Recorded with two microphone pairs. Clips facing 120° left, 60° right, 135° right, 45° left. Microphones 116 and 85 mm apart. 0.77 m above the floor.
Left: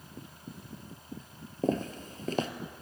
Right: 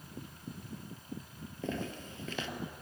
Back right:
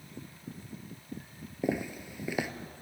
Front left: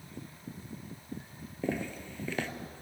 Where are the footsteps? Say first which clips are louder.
Left 8 dB, back right 2 dB; 150° left, 1.0 m.